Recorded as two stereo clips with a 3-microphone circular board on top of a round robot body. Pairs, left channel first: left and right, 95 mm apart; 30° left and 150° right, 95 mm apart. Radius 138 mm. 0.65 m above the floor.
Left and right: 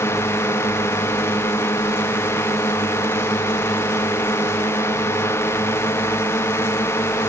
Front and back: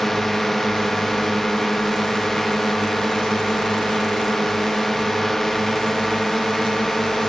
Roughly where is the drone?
Behind left.